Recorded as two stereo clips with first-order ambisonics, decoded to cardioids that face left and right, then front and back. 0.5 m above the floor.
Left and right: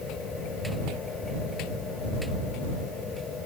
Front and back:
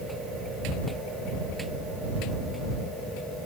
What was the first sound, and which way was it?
Only background noise.